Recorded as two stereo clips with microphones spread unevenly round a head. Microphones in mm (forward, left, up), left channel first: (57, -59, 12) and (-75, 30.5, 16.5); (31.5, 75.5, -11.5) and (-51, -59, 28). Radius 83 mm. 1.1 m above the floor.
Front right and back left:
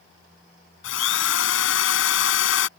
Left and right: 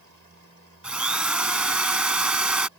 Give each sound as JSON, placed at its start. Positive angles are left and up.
{"t": 0.8, "sound": "a drill", "azimuth_deg": -40}